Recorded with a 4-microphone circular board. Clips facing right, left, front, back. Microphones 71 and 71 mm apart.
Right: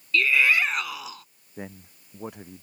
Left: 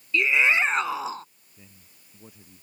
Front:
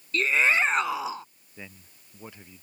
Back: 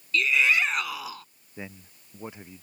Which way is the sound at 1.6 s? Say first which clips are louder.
Right 16 dB, back 5 dB; 110° right.